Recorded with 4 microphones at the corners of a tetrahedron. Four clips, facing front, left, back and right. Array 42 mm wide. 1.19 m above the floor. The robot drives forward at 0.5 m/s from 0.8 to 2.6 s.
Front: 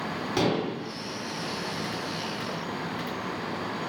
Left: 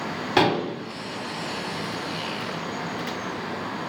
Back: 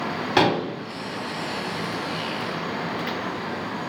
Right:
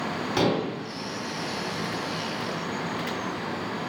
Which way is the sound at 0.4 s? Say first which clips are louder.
Left 4 dB, back 6 dB; 135° left.